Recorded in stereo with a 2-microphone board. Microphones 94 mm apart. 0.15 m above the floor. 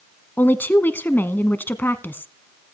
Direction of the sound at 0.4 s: 20° left (ahead or behind).